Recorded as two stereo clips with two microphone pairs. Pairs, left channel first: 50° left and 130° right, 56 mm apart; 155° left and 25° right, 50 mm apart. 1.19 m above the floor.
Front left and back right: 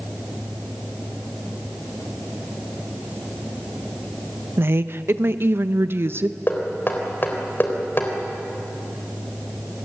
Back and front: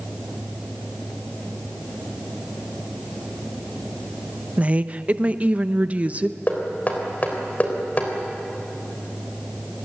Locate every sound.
4.6 s a woman speaking: 85° right, 0.9 m
6.5 s knocking: 100° left, 3.5 m